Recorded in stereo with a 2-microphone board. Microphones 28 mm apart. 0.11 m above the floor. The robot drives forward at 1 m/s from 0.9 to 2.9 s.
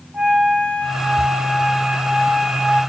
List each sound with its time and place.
0.1 s a flute: 40° right (ahead or behind), 5 m; by 2.8 s 55° right (ahead or behind), 4 m